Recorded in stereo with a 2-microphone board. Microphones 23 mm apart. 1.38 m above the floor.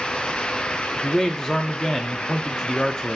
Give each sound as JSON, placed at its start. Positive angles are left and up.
{"t": 1.0, "sound": "a man speaking", "side_deg": 30, "distance_m": 0.5}